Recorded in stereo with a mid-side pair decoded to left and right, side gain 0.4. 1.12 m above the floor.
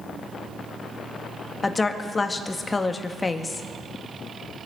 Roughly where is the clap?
I don't hear a clap.